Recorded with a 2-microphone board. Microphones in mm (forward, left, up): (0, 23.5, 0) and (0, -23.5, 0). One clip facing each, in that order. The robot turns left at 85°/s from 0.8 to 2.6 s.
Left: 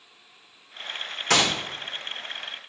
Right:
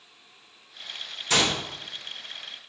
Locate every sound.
1.3 s a gunshot: 75° left (ahead or behind), 1.0 m; by 1.5 s 55° left (ahead or behind), 1.0 m